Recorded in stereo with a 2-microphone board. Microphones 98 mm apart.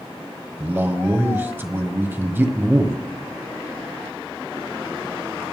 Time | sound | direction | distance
0.6 | a man speaking | 20° right (ahead or behind) | 1.3 m